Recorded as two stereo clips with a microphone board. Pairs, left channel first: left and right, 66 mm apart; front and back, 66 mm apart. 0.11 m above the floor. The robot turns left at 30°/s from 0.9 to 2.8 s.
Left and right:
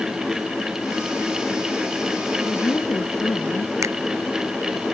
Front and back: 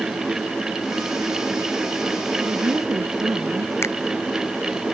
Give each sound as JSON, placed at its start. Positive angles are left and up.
{"t": 2.5, "sound": "a woman speaking", "azimuth_deg": 145}
{"t": 3.8, "sound": "a finger snap", "azimuth_deg": -50}